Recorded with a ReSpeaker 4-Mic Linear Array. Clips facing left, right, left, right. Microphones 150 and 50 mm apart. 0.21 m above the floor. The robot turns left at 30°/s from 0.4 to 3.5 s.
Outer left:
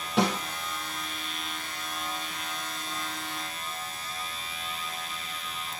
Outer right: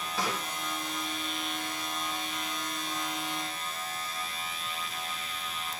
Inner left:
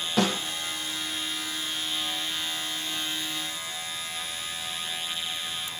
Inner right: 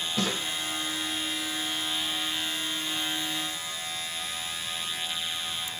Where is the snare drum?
80° left, 9 m.